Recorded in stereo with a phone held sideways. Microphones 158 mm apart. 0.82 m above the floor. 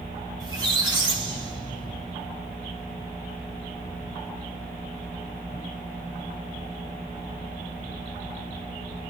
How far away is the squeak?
About 1.0 m.